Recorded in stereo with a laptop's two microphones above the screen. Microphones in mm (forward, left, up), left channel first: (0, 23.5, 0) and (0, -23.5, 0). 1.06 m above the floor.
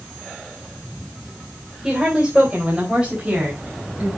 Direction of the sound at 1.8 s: 20° right (ahead or behind).